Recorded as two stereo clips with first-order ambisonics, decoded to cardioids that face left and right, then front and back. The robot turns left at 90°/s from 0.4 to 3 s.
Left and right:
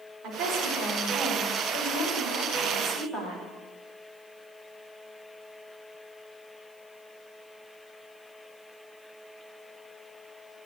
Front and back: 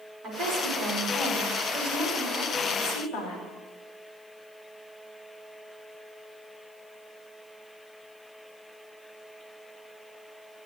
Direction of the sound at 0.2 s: 130° right.